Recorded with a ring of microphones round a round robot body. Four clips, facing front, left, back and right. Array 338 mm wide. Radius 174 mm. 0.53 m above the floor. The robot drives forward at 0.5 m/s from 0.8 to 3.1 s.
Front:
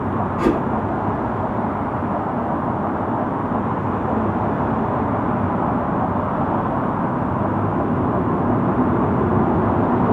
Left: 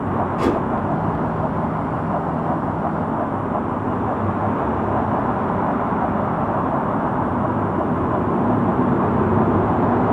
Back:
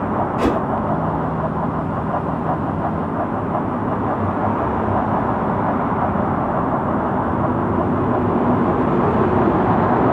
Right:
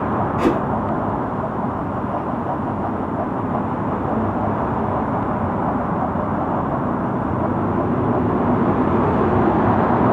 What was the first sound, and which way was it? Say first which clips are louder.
A whoosh: right 2 dB, front 1 dB; straight behind.